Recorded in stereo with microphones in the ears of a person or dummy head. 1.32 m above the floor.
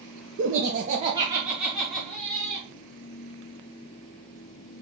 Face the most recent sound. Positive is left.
turn(degrees=10)  # may be behind; listen again after turning